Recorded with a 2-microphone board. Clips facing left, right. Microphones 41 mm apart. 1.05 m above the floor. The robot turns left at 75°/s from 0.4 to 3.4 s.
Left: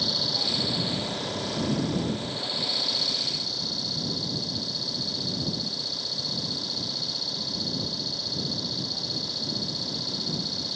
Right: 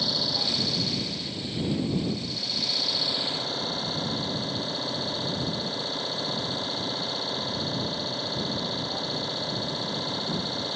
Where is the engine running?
175° right; by 10.8 s 40° right.